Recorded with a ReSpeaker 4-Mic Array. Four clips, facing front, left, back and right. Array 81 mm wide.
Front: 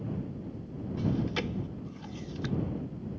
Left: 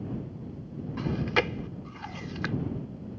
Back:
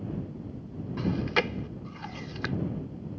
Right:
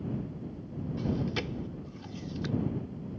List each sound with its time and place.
1.0 s chewing: 125° left